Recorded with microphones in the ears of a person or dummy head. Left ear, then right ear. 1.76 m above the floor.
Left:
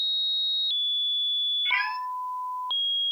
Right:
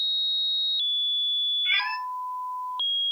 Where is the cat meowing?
10° right (ahead or behind), 1.1 m.